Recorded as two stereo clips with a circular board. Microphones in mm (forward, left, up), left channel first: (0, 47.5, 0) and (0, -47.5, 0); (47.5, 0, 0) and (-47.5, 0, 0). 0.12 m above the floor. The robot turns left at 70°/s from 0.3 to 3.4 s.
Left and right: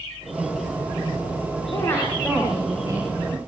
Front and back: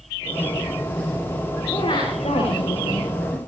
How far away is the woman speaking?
About 9 m.